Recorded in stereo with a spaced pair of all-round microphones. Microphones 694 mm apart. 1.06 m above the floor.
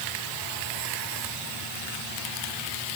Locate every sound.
Only background noise.